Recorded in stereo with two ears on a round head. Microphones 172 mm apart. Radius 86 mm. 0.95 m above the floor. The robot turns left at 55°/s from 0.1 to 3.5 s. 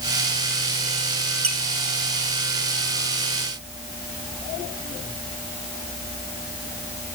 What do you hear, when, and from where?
1.4 s a squeak: 35° right (ahead or behind), 1.4 m; by 1.6 s 40° right (ahead or behind), 1.4 m